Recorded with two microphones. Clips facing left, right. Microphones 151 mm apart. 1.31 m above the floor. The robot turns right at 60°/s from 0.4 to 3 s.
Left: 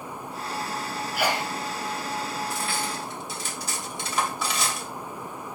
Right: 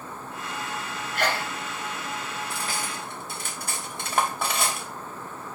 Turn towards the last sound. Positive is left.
turn(degrees=-55)  # may be behind; listen again after turning